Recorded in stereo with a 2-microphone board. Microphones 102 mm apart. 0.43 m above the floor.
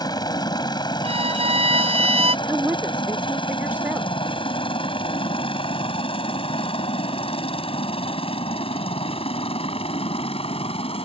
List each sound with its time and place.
0.0 s a helicopter: 40° left (ahead or behind); by 11.1 s 70° left (ahead or behind)
1.0 s a violin: 75° right (ahead or behind)
2.5 s a woman speaking: 15° right (ahead or behind)